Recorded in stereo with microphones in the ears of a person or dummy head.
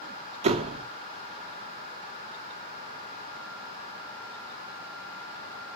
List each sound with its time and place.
0.4 s a door slam: 40° right (ahead or behind), 1.4 m